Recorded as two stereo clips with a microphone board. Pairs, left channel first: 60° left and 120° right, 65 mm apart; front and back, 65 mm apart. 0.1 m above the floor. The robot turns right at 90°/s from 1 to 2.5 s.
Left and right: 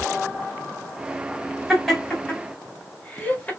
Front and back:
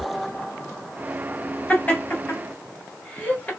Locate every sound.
1.7 s laughter: 40° right, 1.5 m; by 3.5 s 35° left, 1.5 m